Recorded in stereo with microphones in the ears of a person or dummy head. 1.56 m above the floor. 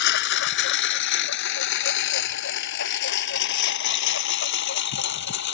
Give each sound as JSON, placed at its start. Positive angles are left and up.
{"t": 0.0, "sound": "a lawn mower", "side_deg": 70}